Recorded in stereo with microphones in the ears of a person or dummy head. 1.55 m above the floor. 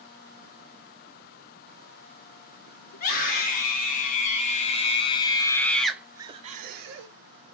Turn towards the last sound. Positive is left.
turn(degrees=-70)  # may be behind; listen again after turning